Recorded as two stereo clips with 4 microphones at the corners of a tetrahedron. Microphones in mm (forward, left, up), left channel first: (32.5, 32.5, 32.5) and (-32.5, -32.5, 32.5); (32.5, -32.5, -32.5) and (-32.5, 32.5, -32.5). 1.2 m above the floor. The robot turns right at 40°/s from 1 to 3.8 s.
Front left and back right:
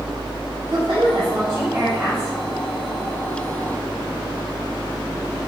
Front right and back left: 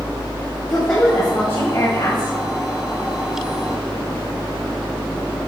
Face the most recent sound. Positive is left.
turn(degrees=0)